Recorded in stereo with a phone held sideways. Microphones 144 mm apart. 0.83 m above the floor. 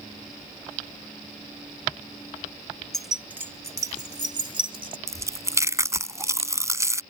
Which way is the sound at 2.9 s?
5° left (ahead or behind).